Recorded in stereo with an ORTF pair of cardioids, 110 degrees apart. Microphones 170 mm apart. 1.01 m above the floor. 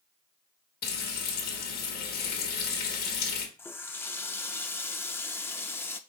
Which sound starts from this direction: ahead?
A running tap, at 3.6 s.